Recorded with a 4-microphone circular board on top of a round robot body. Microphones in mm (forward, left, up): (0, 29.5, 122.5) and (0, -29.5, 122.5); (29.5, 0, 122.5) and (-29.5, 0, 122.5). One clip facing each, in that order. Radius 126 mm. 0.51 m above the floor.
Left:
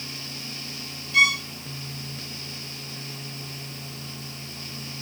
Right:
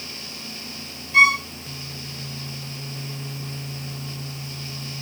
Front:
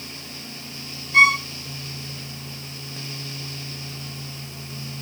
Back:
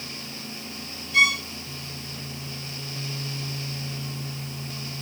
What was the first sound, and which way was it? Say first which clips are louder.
A violin: right 5 dB, front 5 dB; 45° right.